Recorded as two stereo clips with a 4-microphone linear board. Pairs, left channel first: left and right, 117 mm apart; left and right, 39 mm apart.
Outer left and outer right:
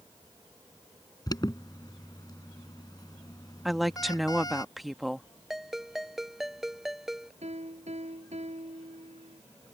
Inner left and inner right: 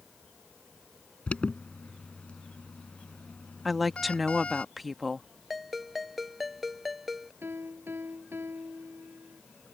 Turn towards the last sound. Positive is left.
turn(degrees=-65)  # may be behind; listen again after turning